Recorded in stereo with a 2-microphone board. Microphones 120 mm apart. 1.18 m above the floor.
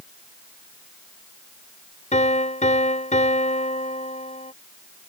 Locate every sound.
2.1 s a piano: 85° left